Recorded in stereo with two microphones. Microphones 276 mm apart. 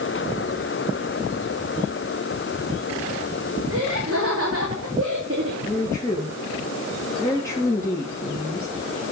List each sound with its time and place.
3.7 s laughter: 50° right (ahead or behind), 2 m
5.7 s a woman speaking: 10° left (ahead or behind), 2.5 m